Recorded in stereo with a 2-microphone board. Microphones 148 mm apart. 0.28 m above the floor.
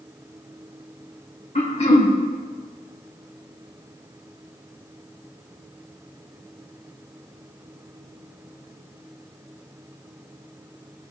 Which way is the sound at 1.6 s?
45° left (ahead or behind).